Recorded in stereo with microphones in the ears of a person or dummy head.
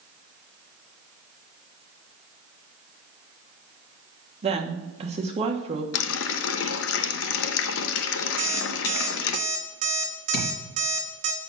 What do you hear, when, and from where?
4.4 s a woman speaking: 30° right (ahead or behind), 1.4 m
5.9 s a running tap: 75° left (ahead or behind), 0.7 m
8.4 s an alarm clock: 40° right (ahead or behind), 2 m
10.3 s a thud: 75° left (ahead or behind), 4 m